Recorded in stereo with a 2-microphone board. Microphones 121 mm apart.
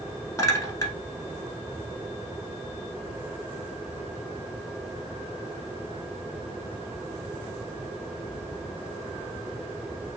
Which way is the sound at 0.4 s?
30° left (ahead or behind).